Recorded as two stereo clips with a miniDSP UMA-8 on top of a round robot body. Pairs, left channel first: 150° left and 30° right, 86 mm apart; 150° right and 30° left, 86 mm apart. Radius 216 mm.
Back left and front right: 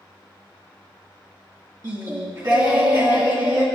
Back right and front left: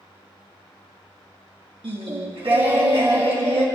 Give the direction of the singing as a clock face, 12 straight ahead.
12 o'clock.